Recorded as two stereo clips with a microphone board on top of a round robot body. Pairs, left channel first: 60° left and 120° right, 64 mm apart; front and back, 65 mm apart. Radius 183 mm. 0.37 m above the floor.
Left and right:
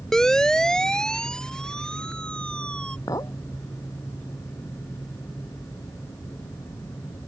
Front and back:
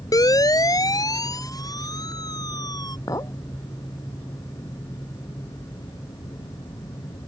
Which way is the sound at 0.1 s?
20° right.